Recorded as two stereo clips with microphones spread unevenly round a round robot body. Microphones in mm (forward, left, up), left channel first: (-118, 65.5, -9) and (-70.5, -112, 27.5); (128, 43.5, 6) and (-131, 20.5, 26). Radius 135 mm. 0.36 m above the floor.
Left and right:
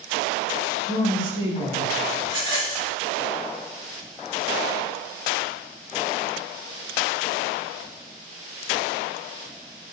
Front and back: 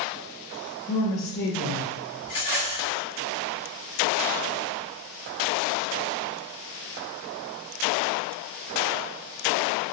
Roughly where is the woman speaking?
Right.